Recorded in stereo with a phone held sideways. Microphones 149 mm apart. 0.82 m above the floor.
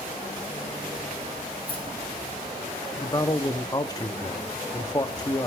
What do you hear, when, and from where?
1.7 s keys jangling: 40° left (ahead or behind), 4 m
3.0 s a man speaking: 25° left (ahead or behind), 1.1 m